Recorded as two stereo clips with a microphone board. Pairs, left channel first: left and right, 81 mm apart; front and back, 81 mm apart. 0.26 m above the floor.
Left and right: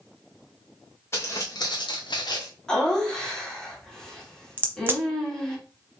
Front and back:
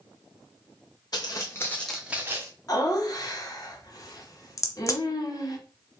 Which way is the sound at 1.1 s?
35° left.